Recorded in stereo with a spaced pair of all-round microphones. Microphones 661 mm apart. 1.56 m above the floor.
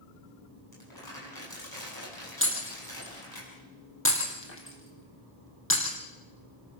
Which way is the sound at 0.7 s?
35° left (ahead or behind).